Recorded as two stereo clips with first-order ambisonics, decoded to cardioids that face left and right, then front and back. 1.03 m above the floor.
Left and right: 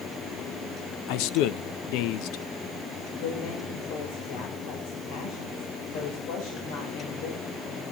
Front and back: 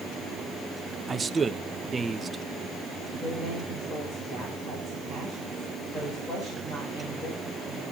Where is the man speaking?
105° left, 0.5 m.